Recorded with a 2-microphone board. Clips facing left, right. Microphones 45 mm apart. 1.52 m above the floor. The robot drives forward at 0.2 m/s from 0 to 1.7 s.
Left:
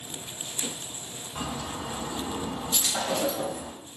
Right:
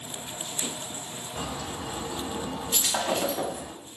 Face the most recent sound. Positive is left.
turn(degrees=-45)  # may be behind; listen again after turning